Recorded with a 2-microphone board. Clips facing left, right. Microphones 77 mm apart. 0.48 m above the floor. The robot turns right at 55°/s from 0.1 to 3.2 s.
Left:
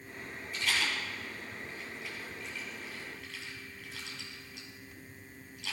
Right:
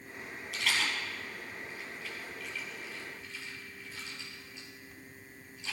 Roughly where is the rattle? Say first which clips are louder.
Even; right.